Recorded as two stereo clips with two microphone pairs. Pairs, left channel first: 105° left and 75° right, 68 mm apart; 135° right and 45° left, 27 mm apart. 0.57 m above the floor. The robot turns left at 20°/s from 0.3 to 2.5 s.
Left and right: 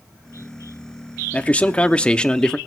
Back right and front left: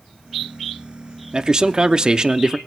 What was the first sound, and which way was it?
A man speaking, 65° left.